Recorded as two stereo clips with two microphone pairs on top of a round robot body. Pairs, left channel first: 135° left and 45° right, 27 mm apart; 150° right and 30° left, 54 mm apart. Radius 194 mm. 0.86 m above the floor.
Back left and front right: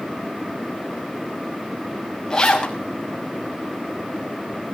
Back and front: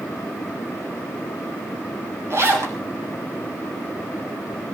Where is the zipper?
65° left, 5.5 m.